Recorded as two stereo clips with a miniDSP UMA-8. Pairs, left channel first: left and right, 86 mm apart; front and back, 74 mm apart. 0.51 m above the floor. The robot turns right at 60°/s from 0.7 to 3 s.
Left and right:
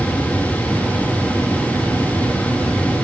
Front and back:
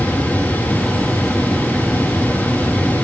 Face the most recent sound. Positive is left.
No sound to turn to.